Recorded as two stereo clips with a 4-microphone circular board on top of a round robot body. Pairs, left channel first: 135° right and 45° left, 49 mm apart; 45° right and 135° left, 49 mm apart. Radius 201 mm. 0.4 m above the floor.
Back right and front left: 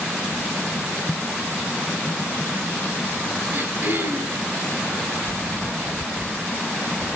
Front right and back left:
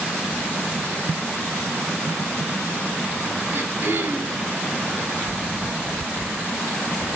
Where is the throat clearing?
100° left, 3 m.